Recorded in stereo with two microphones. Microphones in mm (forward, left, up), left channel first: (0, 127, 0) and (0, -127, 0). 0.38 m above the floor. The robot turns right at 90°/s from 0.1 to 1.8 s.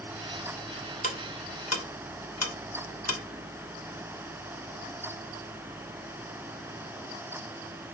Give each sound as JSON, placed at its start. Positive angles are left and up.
{"t": 1.0, "sound": "ticking", "side_deg": 30, "distance_m": 0.6}